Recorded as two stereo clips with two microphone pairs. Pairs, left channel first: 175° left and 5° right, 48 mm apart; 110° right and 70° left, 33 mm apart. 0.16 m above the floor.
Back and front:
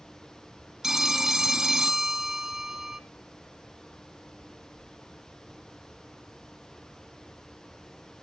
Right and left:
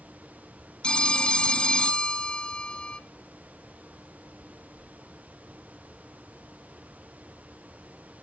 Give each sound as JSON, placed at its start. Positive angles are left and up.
{"t": 0.8, "sound": "a phone ringing", "azimuth_deg": -75, "distance_m": 0.8}